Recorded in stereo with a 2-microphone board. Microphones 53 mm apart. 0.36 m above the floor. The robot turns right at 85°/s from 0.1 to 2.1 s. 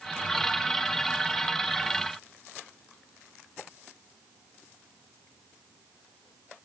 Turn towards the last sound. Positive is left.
No sound to turn to.